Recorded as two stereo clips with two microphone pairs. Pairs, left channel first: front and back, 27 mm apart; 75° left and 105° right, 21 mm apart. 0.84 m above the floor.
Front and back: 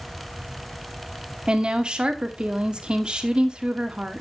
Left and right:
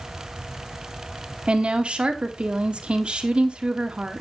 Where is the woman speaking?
125° right, 1.5 m.